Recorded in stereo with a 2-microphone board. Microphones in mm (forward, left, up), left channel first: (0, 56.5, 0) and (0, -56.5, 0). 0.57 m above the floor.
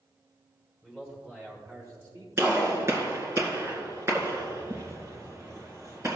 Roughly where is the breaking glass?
No breaking glass in this recording.